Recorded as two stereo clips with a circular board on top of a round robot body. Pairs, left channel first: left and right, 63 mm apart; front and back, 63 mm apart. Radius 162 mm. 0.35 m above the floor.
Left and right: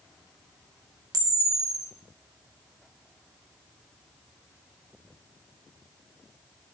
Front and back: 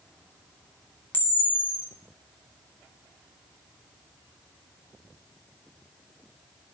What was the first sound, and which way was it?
A camera shutter, 60° right.